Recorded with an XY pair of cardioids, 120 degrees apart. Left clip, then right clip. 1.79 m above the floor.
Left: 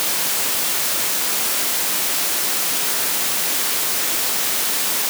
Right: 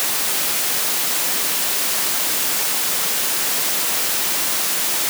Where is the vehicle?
I don't hear a vehicle.